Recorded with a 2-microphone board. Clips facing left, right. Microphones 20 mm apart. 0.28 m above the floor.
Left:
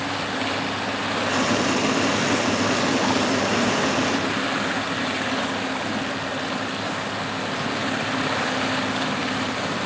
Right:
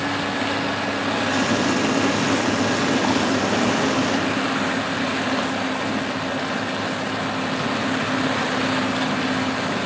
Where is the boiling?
25° left (ahead or behind), 1.2 m.